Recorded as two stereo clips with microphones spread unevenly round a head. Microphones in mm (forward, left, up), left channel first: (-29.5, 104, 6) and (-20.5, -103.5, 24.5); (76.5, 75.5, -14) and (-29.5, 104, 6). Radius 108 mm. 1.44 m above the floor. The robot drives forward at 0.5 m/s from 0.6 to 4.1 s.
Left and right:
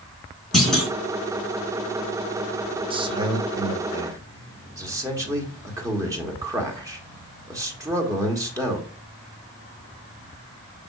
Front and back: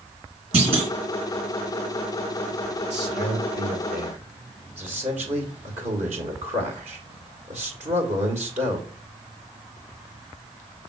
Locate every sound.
0.5 s a clunk: 175° right, 3 m
2.9 s a man speaking: 155° right, 1.1 m; by 8.8 s 160° right, 1.7 m